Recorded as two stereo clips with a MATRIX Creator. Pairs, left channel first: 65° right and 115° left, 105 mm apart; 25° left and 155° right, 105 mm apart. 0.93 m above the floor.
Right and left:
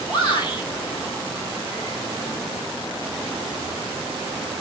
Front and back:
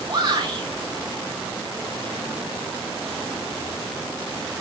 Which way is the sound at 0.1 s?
110° right.